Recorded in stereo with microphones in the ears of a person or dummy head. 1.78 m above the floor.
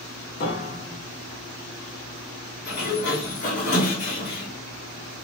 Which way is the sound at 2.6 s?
40° left (ahead or behind).